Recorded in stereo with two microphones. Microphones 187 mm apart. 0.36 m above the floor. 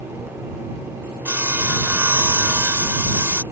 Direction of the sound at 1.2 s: 10° right (ahead or behind).